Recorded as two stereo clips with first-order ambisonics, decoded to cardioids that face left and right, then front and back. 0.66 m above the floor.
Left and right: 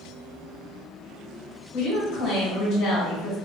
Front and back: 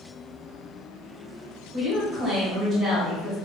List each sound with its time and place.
1.7 s a woman speaking: 120° left, 1.5 m